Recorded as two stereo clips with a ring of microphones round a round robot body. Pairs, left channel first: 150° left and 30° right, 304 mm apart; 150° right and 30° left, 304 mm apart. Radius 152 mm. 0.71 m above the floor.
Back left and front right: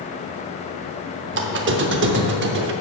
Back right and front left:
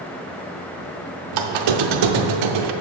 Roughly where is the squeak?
Ahead left.